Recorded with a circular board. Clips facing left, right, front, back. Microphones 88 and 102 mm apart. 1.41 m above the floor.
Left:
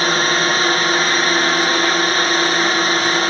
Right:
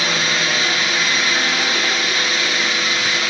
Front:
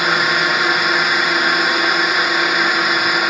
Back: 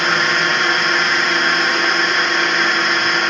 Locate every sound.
0.0 s a drone: 80° left